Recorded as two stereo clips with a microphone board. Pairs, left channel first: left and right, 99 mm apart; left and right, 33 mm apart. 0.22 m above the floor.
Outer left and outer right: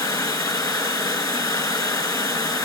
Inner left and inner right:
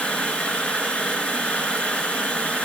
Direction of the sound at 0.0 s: 40° left (ahead or behind).